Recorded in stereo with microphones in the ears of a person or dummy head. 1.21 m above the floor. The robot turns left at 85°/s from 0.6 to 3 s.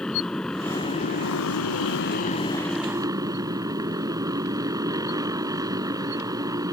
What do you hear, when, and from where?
0.0 s a motorcycle: straight behind; by 6.7 s 20° right